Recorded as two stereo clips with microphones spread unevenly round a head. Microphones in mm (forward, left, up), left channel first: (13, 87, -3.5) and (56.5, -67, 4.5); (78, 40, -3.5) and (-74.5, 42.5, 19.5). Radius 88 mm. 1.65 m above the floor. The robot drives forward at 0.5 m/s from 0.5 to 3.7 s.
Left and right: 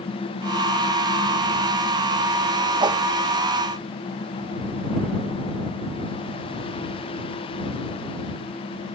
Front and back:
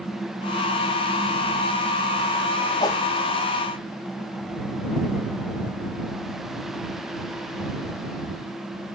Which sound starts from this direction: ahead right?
A whoosh, at 2.8 s.